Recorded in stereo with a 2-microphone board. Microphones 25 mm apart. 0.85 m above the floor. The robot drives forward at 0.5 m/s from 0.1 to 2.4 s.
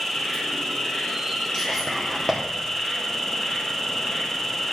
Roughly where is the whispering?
Left.